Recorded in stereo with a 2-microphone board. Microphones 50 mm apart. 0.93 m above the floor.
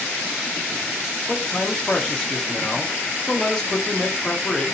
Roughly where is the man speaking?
Centre.